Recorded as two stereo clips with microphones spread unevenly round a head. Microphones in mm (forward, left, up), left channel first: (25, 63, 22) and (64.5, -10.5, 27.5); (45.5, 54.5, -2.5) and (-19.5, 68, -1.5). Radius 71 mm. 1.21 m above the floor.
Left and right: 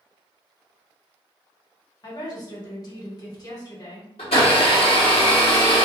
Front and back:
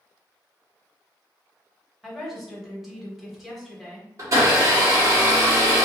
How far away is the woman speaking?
About 1.2 m.